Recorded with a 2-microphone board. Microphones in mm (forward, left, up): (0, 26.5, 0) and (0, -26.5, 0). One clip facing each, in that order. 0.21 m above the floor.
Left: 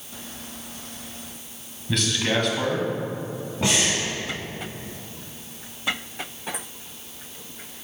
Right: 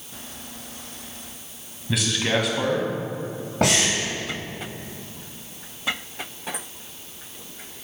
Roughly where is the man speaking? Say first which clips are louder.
Even; centre.